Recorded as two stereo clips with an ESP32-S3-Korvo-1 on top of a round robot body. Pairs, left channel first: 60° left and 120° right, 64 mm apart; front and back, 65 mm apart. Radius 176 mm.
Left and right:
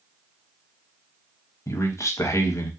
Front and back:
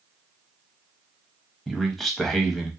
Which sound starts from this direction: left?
A man speaking, at 1.7 s.